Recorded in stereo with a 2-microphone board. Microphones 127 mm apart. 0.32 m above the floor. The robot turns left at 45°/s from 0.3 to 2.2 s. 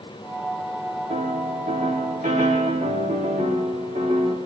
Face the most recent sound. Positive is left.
turn(degrees=-105)